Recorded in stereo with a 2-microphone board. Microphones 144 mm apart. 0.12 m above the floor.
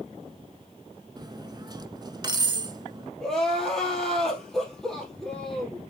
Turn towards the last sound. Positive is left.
turn(degrees=5)  # may be behind; listen again after turning